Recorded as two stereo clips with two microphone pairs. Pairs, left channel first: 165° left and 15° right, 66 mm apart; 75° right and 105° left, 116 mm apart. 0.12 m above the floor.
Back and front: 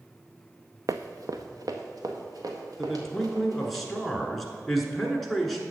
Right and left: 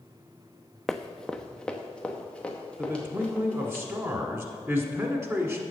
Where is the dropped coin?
No dropped coin in this recording.